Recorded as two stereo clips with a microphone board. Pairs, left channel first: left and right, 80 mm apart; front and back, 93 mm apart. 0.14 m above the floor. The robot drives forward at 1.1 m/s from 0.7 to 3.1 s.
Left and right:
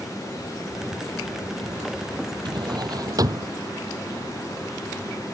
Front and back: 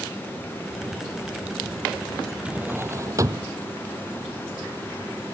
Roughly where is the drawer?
Right.